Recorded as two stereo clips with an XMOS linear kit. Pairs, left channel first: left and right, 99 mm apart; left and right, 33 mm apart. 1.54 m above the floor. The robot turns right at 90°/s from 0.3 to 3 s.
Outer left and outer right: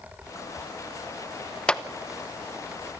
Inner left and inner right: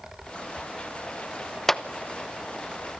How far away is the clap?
About 0.9 m.